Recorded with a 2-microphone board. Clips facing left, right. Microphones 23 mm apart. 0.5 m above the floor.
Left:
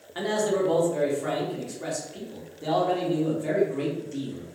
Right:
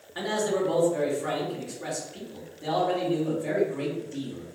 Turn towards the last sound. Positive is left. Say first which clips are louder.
# left 2 dB
turn(degrees=20)  # may be behind; listen again after turning